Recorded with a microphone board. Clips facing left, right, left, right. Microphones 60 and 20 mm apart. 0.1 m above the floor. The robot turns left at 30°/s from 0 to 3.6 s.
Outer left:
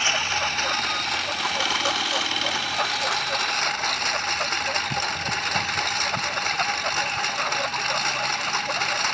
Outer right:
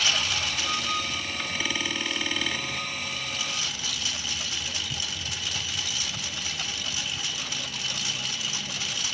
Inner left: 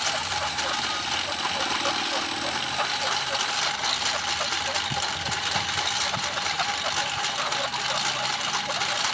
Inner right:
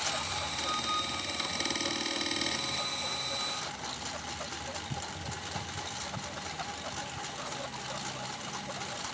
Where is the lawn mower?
155° left; by 9.2 s 50° left.